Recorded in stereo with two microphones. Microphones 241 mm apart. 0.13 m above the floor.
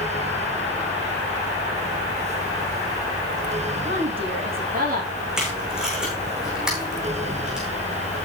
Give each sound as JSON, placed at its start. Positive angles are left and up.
{"t": 3.9, "sound": "a woman speaking", "side_deg": -40, "distance_m": 7.5}
{"t": 5.4, "sound": "tape being pulled", "side_deg": -5, "distance_m": 6.0}